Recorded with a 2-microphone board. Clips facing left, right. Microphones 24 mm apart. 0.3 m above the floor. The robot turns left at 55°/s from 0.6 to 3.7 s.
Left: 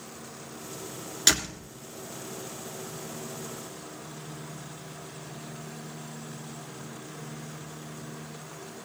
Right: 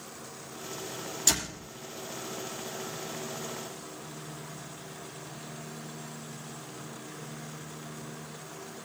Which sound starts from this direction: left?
A door slam, at 1.3 s.